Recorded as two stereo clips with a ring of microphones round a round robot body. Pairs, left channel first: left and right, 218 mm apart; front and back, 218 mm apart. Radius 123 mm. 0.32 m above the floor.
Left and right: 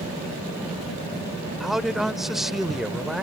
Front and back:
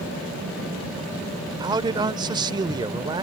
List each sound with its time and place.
1.6 s a man speaking: 175° right